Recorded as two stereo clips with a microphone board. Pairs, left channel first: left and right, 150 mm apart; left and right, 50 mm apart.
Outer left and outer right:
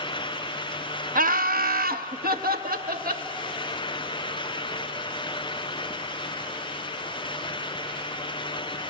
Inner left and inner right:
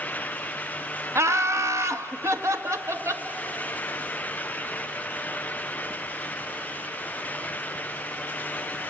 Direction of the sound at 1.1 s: 65° right (ahead or behind).